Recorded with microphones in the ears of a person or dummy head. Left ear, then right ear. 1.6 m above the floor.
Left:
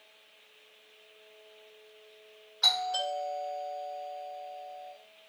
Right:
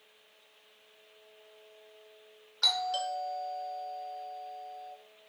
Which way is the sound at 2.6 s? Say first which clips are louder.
Left 2 dB; 20° right (ahead or behind).